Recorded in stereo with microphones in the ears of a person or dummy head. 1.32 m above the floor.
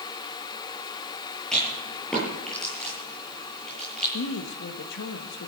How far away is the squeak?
No squeak in this recording.